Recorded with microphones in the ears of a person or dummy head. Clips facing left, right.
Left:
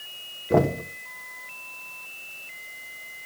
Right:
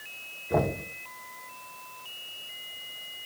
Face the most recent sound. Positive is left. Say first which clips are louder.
# left 6 dB
turn(degrees=45)  # may be behind; listen again after turning